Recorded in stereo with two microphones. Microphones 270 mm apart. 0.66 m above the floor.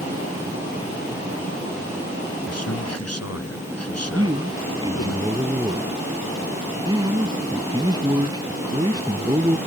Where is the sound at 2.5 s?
65° left (ahead or behind).